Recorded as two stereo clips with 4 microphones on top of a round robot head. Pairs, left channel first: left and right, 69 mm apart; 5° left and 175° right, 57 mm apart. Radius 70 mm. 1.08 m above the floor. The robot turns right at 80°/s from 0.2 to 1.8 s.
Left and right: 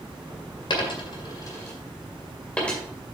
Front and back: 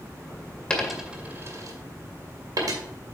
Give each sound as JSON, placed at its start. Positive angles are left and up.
{"t": 0.7, "sound": "a dropped coin", "azimuth_deg": 80, "distance_m": 2.0}